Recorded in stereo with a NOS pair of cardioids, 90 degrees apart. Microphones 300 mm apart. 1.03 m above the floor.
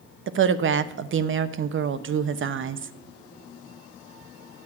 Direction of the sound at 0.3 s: 40° right.